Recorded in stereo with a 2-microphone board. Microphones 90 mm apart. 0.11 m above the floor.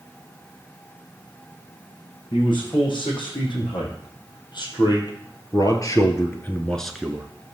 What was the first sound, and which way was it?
A man speaking, 60° left (ahead or behind).